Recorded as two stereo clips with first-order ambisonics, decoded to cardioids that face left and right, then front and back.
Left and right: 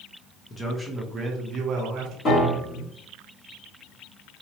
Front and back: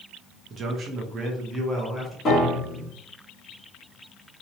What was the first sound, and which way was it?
A man speaking, 150° left.